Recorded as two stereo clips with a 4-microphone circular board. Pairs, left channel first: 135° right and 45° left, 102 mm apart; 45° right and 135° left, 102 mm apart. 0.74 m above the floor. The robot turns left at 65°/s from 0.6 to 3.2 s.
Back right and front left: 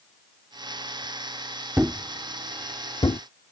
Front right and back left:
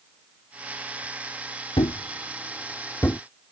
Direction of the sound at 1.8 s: 25° right.